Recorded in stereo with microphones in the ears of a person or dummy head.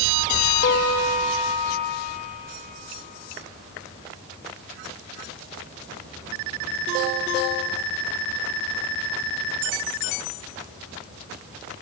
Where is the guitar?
50° left (ahead or behind), 1.9 m.